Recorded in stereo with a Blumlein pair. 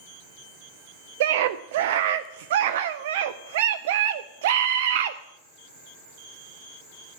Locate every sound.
1.2 s a scream: 55° right, 0.5 m